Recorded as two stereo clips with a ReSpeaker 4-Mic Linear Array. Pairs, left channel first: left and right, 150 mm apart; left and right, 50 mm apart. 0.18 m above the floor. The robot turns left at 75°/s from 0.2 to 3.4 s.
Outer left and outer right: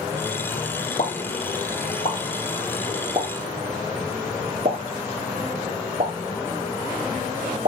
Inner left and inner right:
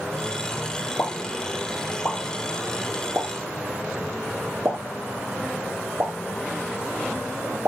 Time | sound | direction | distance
1.0 | a pop | 55° left (ahead or behind) | 3 m